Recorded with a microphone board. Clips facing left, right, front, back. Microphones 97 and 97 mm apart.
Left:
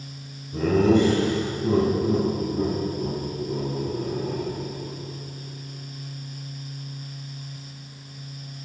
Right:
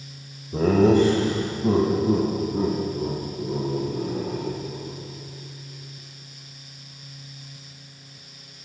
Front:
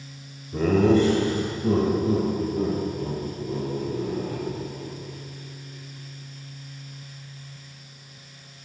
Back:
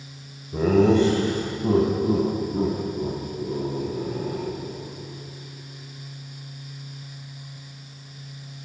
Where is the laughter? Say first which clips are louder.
Right 2 dB, back 1 dB; 105° right, 1.0 m; by 5.0 s 145° right, 4.5 m.